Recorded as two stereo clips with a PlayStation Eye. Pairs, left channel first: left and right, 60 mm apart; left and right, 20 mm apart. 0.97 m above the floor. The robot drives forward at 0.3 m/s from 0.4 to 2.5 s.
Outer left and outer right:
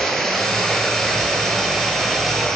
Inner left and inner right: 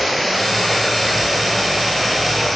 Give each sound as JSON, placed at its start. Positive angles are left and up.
{"t": 0.0, "sound": "running water", "side_deg": 10, "distance_m": 3.5}